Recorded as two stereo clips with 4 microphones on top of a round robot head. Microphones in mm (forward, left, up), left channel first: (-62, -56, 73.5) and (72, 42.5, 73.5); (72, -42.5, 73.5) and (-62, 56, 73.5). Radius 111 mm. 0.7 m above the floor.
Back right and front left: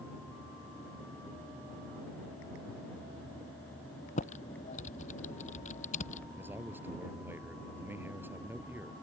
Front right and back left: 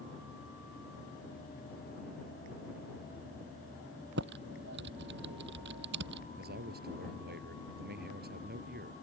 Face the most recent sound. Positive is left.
turn(degrees=115)